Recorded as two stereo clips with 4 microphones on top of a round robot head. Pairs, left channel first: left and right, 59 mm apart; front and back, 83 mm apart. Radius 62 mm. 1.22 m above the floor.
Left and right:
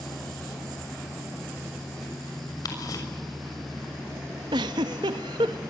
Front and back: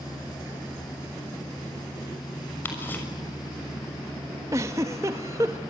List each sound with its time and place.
2.6 s ticking: 70° left, 6.5 m
4.5 s a giggle: 115° right, 0.9 m